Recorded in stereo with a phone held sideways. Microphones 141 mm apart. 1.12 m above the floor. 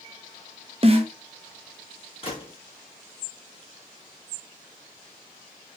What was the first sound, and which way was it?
A snare drum, 40° right (ahead or behind).